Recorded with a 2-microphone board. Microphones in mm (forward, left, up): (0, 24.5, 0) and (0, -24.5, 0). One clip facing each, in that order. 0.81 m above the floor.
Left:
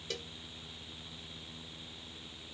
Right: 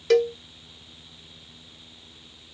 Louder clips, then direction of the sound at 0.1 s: Right 25 dB; 85° right.